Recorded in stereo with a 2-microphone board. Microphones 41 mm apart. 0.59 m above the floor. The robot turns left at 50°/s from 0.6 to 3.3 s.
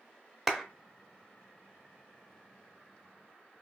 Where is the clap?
10° right (ahead or behind), 0.8 m; by 0.7 s 5° right (ahead or behind), 0.8 m.